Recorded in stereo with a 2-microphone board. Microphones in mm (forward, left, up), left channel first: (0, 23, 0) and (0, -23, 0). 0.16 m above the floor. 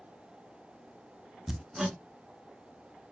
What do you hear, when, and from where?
1.5 s hammering: 5° right (ahead or behind), 0.7 m